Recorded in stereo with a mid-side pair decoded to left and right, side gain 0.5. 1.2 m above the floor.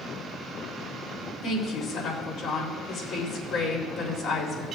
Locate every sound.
1.4 s a woman speaking: 60° left, 3 m